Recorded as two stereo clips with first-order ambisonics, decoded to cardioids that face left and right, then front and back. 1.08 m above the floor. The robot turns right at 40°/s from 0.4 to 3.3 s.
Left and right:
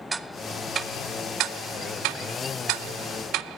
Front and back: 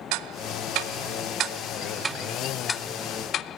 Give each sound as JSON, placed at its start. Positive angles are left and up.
{"t": 0.1, "sound": "ticking", "azimuth_deg": -170, "distance_m": 0.6}